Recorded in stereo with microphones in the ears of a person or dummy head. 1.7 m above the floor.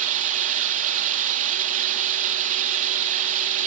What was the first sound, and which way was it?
Running water, 40° right (ahead or behind).